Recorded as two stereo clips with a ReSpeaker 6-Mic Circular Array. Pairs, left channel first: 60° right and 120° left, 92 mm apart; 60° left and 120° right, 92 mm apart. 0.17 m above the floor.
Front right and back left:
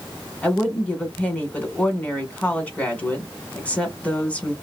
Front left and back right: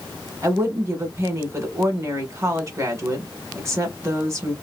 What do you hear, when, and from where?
0.4 s a woman speaking: 120° right, 1.2 m